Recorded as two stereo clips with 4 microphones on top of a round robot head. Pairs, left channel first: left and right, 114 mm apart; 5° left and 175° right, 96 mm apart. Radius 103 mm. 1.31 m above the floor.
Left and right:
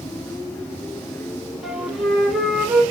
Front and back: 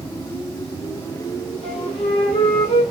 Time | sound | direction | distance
1.6 | a flute | 5° right | 1.0 m